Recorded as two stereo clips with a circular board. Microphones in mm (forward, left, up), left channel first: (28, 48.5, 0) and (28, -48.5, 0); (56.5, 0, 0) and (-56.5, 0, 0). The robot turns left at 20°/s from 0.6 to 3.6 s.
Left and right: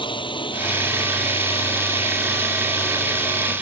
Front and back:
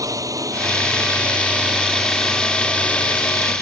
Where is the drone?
120° left; by 3.6 s 60° left.